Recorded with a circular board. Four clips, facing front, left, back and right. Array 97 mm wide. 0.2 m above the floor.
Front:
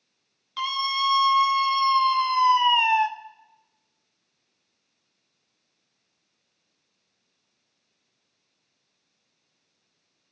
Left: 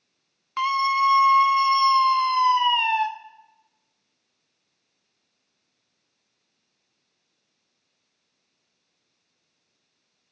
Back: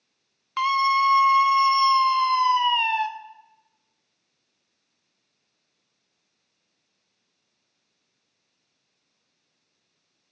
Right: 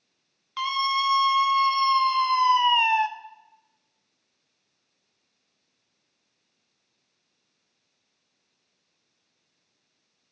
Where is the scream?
150° left, 1.6 m; by 3.1 s 35° right, 1.1 m.